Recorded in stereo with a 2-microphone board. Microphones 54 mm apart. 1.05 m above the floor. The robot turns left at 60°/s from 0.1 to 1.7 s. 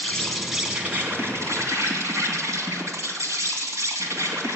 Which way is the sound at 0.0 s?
20° left.